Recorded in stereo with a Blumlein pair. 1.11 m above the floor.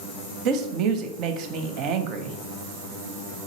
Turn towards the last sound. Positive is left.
turn(degrees=-35)